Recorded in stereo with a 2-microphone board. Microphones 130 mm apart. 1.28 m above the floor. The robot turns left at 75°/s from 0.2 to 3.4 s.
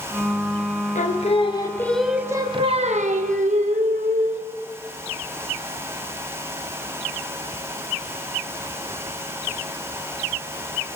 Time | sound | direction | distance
0.9 | singing | 80° left | 0.9 m